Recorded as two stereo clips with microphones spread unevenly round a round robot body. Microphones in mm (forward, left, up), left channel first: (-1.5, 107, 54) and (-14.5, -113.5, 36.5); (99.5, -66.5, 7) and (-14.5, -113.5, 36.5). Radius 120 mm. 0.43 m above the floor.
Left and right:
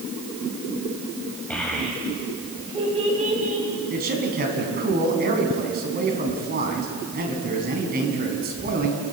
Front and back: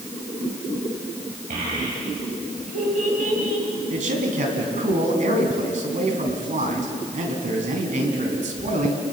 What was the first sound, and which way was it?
A child speaking, 170° left.